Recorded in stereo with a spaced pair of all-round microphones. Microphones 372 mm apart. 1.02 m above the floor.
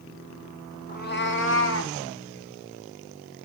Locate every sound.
0.9 s a cat meowing: 25° left (ahead or behind), 0.8 m; by 1.9 s 40° left (ahead or behind), 1.3 m